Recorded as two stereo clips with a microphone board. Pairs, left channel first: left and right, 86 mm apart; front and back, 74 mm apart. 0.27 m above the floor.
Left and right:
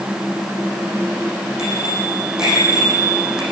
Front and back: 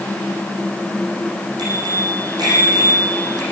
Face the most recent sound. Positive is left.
turn(degrees=-170)